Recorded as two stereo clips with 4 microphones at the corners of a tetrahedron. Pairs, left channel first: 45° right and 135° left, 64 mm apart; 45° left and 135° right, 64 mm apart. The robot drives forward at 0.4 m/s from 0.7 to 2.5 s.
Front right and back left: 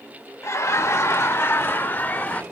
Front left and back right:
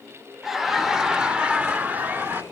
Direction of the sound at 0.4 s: 50° right.